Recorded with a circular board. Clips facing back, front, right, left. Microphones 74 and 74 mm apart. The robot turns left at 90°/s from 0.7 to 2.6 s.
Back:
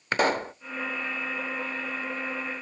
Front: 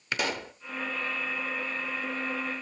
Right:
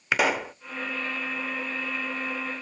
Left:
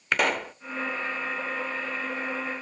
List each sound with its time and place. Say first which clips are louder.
0.1 s a pop: back 7 dB, right 1 dB; 175° right, 0.6 m